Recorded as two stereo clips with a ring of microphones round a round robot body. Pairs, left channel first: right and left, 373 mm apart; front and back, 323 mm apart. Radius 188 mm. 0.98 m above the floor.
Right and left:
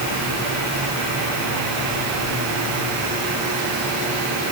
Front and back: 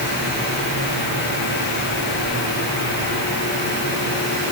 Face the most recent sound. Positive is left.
No sound to turn to.